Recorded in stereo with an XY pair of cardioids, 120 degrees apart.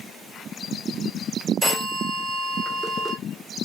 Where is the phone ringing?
25° right, 1.9 m.